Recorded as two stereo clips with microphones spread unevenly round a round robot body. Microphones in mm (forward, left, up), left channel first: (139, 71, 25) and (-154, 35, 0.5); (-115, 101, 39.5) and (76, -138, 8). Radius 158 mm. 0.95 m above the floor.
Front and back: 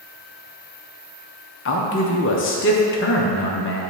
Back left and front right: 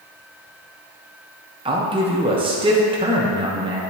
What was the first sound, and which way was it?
A man speaking, straight ahead.